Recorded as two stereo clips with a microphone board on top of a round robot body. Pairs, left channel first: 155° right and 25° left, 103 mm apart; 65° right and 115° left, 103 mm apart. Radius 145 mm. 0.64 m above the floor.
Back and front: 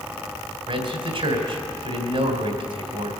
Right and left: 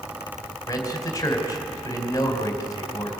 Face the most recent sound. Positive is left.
turn(degrees=-10)